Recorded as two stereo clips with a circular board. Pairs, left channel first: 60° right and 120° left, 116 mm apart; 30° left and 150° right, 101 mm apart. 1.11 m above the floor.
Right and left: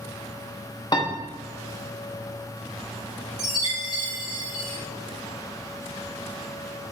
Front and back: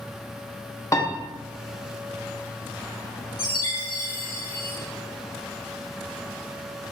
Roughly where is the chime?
Left.